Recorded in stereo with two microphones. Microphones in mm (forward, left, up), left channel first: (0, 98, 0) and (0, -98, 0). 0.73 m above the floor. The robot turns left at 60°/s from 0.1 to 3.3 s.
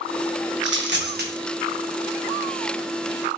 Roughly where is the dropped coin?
Right.